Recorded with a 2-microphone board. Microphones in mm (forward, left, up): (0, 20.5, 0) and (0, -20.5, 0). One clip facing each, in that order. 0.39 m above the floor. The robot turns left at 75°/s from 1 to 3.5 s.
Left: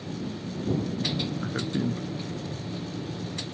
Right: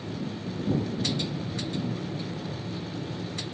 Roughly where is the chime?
I don't hear a chime.